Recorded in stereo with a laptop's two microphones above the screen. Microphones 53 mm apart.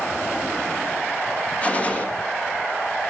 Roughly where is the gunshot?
Left.